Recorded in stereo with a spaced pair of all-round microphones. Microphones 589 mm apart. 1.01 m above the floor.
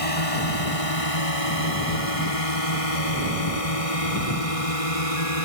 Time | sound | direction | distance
0.0 | a drone | 75° left (ahead or behind) | ?